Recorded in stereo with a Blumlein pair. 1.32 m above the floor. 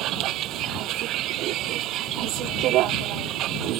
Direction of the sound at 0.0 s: 35° right.